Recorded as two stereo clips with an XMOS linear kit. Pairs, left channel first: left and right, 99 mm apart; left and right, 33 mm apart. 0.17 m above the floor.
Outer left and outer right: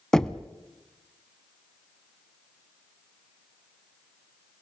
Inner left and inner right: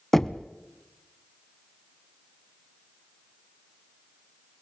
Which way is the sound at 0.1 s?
5° left (ahead or behind).